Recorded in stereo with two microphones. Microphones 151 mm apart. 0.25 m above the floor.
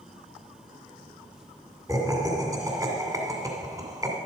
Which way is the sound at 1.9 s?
25° right (ahead or behind).